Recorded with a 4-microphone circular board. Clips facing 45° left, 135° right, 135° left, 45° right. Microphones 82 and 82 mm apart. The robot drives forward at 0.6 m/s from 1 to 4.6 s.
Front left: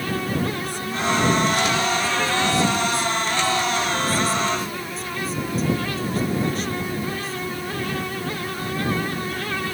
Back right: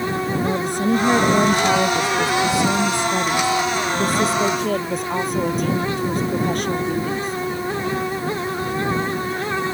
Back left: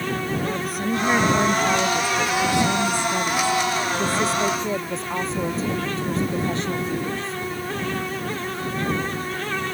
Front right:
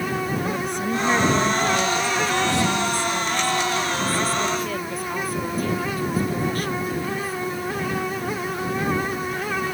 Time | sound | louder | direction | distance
0.4 | a woman speaking | back right 6 dB, even | 140° right | ?